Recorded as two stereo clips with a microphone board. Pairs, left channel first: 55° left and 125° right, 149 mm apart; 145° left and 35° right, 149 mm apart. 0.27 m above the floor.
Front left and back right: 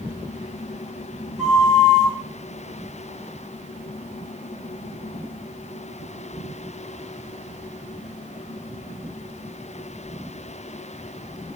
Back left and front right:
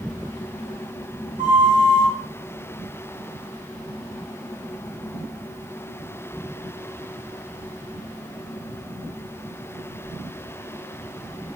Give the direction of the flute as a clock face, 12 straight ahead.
1 o'clock.